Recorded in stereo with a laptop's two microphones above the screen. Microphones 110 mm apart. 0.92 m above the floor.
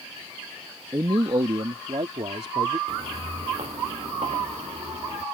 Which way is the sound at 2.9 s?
65° right (ahead or behind).